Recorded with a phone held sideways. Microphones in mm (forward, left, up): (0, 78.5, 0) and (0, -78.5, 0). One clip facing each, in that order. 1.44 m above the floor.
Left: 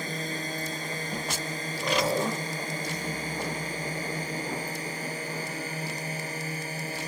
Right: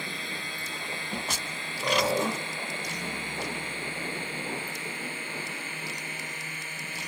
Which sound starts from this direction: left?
A drone, at 0.0 s.